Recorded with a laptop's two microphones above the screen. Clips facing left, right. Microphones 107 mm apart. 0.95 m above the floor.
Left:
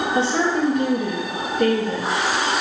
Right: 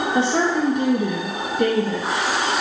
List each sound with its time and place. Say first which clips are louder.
0.1 s a woman speaking: right 1 dB; 20° right (ahead or behind), 0.7 m